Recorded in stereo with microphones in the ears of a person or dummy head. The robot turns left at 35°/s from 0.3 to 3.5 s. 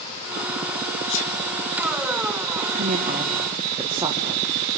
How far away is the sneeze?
About 7 m.